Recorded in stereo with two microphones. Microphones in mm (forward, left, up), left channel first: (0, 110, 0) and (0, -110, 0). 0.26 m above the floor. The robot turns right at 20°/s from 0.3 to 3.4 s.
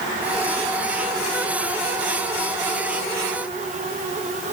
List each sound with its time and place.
Only background noise.